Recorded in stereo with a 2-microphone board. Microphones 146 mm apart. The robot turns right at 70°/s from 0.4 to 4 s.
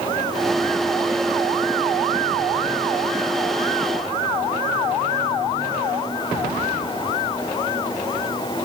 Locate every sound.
Only background noise.